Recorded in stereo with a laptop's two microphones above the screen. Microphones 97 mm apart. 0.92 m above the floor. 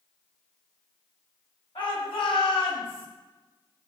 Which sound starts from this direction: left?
A shout, at 1.8 s.